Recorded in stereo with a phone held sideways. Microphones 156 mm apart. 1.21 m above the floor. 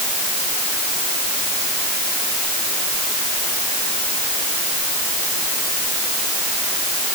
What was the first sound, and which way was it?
Only background noise.